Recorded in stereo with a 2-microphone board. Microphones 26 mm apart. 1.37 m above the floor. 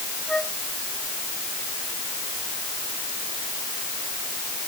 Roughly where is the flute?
Left.